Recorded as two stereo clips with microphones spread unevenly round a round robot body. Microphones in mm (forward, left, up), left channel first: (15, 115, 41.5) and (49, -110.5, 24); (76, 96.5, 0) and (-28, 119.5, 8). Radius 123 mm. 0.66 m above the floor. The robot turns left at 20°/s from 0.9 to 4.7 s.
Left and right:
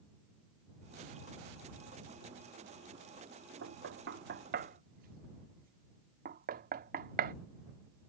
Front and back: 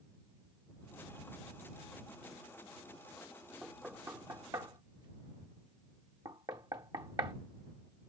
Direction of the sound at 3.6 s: 105° right.